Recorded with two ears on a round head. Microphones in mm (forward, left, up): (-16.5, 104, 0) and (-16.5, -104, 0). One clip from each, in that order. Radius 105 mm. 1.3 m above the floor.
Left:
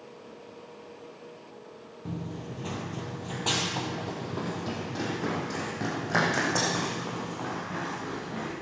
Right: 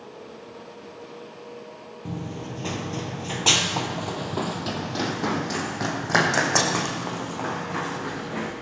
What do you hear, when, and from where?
2.0 s running footsteps: 15° right (ahead or behind), 1.6 m; by 8.5 s 30° right (ahead or behind), 5 m